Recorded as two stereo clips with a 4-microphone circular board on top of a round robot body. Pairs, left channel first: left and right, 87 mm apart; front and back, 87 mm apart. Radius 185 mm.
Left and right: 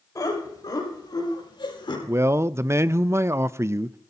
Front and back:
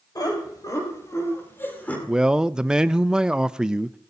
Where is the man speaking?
110° right, 0.6 m.